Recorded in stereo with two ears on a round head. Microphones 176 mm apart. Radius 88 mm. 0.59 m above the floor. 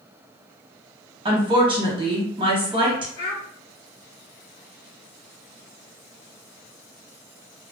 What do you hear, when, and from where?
1.2 s a woman speaking: 25° right (ahead or behind), 1.0 m
3.2 s a child speaking: 40° left (ahead or behind), 1.9 m